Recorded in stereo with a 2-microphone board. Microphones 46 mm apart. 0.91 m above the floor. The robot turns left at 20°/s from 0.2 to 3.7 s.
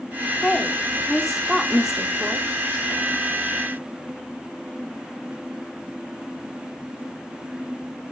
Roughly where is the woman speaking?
Ahead.